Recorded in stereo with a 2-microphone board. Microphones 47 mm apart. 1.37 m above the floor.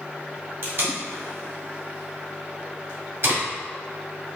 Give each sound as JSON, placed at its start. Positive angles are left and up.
{"t": 0.6, "sound": "tape being pulled", "side_deg": -65, "distance_m": 1.9}